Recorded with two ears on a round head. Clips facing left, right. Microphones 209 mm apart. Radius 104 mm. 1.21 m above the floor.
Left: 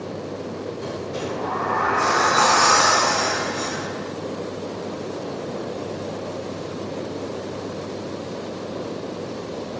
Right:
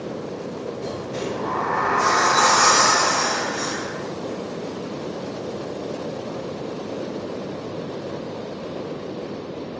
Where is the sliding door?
20° left (ahead or behind), 1.5 m.